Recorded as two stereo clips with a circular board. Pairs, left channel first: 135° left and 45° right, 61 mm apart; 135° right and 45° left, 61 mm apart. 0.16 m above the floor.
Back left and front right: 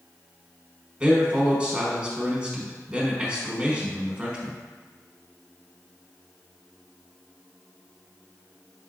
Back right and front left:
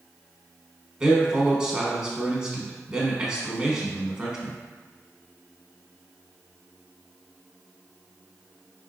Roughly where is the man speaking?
Ahead.